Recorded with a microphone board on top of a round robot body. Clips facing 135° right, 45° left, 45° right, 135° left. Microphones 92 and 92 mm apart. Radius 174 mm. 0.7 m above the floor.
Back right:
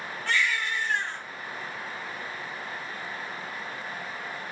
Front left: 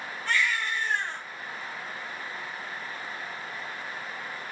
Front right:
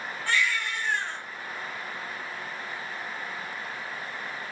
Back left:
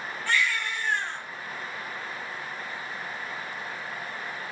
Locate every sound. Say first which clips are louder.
0.3 s a baby crying: even, even; 125° right, 2 m